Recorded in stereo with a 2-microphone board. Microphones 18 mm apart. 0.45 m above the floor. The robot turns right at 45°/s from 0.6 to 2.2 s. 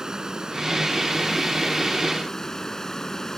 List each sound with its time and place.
0.0 s running water: 35° right; by 3.4 s 40° left